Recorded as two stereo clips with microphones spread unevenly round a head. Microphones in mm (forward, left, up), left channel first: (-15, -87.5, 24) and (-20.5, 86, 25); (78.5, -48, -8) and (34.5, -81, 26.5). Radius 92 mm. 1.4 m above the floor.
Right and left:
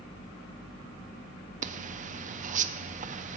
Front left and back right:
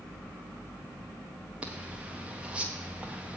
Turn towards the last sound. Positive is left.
turn(degrees=110)